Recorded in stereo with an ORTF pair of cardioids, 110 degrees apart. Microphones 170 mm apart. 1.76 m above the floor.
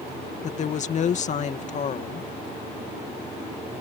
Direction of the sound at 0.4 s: 45° left.